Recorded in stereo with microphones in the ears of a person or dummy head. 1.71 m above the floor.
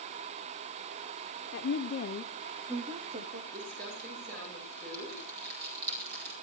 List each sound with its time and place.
1.5 s a woman speaking: 65° left (ahead or behind), 1.2 m; by 3.4 s 45° right (ahead or behind), 1.3 m
3.5 s crumpling: 55° right (ahead or behind), 9 m